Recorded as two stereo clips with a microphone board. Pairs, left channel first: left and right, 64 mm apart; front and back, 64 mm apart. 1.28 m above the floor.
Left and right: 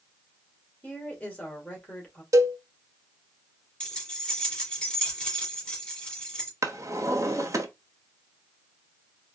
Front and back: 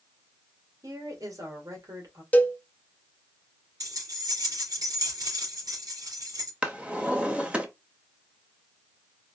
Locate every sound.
0.8 s a woman speaking: 155° left, 2 m
2.3 s a cowbell: 65° right, 0.6 m
3.8 s keys jangling: 165° left, 2.5 m
6.6 s a drawer: 110° right, 0.9 m